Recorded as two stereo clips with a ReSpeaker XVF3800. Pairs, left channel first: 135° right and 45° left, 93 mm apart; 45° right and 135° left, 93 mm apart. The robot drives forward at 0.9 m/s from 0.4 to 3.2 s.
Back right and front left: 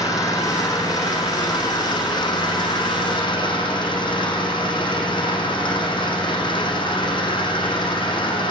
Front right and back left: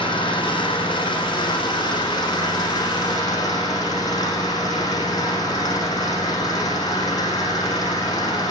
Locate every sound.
0.0 s an engine running: 80° right, 9 m; by 8.5 s 95° right, 9 m